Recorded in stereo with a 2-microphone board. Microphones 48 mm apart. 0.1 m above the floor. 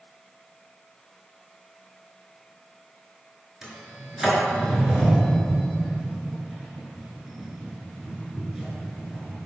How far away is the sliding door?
About 0.8 m.